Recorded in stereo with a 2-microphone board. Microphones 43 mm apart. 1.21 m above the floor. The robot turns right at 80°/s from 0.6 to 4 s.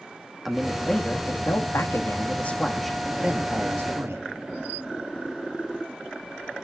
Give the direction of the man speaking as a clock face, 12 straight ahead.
12 o'clock.